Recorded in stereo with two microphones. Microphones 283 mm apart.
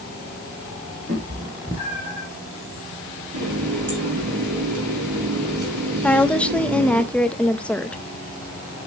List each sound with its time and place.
1.1 s a cat meowing: 30° right (ahead or behind), 3.5 m; by 2.3 s 10° right (ahead or behind), 3 m
3.3 s a running tap: 90° right, 5 m
6.0 s a woman speaking: 5° left (ahead or behind), 0.7 m